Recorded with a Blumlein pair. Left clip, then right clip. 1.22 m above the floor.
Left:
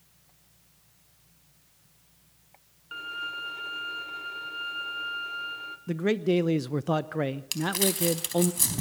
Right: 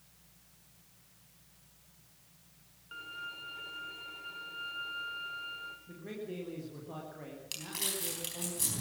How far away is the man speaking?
About 0.7 m.